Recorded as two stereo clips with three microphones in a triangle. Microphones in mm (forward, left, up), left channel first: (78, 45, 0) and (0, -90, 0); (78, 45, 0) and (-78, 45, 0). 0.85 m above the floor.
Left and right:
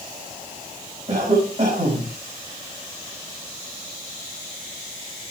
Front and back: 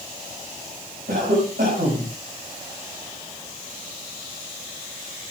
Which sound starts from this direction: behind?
A cough, at 1.1 s.